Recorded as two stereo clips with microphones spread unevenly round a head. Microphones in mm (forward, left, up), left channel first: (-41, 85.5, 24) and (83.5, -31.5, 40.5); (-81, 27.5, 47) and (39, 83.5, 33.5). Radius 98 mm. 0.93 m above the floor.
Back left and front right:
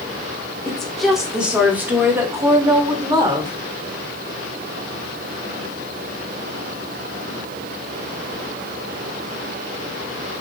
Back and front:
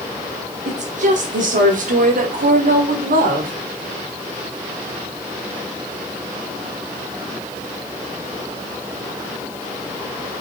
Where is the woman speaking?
50° left, 2.5 m; by 3.5 s 20° left, 3 m.